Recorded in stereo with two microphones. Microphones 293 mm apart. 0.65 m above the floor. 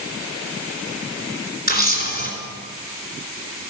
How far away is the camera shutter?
About 3 m.